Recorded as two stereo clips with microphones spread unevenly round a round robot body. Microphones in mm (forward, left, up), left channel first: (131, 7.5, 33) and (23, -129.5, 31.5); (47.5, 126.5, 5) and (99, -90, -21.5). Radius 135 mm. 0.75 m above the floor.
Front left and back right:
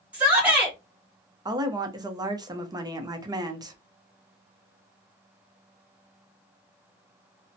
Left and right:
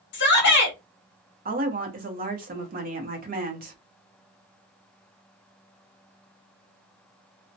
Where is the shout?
150° left, 1.1 m.